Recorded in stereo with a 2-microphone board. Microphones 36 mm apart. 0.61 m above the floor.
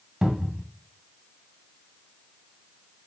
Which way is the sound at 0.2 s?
20° right (ahead or behind).